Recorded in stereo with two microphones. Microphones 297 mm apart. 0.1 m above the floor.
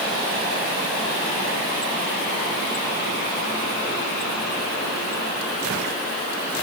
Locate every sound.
Only background noise.